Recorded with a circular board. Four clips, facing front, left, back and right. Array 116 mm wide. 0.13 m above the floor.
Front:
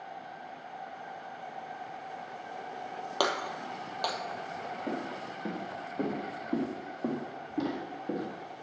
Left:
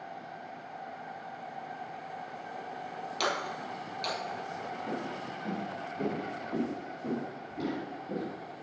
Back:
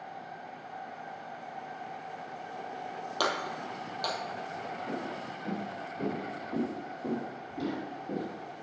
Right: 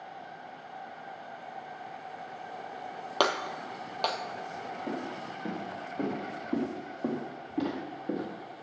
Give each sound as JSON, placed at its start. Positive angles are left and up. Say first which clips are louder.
{"t": 3.2, "sound": "breaking glass", "louder": "right 5 dB, front 1 dB", "azimuth_deg": -70, "distance_m": 1.2}
{"t": 4.9, "sound": "footsteps", "louder": "right 2 dB, front 1 dB", "azimuth_deg": -30, "distance_m": 5.0}